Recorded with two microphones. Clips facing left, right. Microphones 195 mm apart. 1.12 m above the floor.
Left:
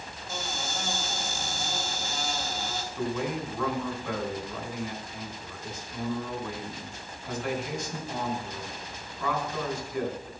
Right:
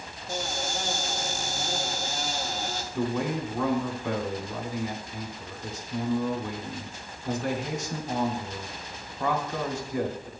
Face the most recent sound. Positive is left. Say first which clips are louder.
# right 3 dB
turn(degrees=-70)  # may be behind; listen again after turning